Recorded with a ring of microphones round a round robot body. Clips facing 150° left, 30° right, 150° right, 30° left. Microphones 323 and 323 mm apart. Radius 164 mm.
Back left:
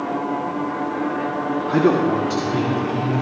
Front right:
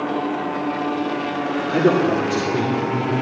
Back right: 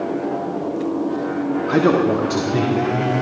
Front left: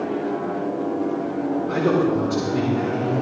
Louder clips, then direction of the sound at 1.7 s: Even, back right 4 dB; 145° right.